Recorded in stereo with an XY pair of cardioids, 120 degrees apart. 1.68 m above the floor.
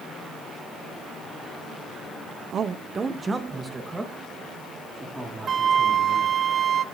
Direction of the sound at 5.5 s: 40° right.